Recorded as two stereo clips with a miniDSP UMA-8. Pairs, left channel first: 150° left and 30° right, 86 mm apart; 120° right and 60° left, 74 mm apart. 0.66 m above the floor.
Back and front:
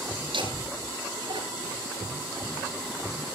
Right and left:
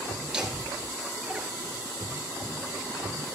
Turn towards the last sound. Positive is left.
turn(degrees=-15)